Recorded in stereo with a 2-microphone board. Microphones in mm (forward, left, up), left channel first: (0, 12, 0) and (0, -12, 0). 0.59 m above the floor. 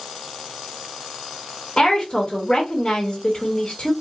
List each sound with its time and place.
1.8 s a woman speaking: 30° left (ahead or behind), 1.3 m